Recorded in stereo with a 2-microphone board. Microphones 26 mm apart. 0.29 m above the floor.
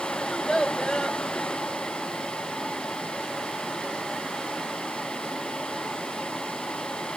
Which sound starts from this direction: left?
A child speaking, at 0.2 s.